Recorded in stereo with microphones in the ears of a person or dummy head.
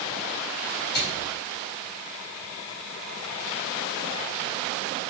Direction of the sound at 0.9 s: 65° left (ahead or behind).